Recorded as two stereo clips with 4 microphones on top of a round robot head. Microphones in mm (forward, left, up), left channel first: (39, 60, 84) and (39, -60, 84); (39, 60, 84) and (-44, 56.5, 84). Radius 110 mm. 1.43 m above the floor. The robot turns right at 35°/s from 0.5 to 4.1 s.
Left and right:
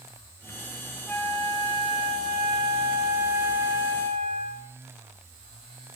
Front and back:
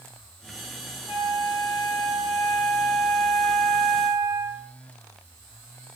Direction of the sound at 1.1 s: 15° left.